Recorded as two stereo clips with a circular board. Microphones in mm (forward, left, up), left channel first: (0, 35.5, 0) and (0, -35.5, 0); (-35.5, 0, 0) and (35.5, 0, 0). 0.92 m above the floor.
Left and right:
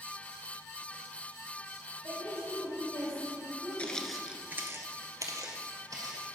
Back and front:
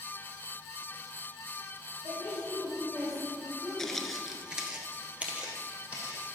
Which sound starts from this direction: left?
Footsteps, at 3.8 s.